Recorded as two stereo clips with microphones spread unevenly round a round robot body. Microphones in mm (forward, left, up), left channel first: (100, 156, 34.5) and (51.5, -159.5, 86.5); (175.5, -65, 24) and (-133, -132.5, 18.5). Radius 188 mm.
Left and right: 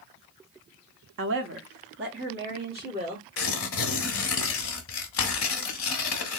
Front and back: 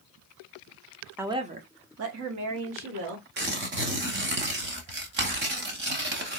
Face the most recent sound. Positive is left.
turn(degrees=135)